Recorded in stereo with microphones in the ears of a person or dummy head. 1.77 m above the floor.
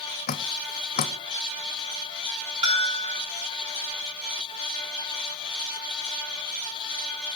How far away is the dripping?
About 0.8 m.